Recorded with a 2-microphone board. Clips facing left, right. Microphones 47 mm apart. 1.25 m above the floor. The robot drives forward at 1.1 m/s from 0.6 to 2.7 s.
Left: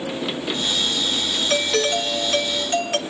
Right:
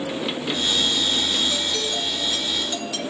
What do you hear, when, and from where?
1.5 s a doorbell: 75° left (ahead or behind), 1.8 m; by 3.0 s 50° left (ahead or behind), 2.5 m